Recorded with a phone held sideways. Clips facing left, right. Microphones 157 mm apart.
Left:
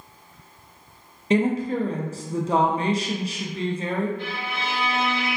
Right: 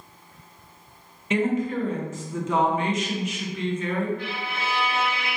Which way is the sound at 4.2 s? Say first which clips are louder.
Left 1 dB; 30° left (ahead or behind).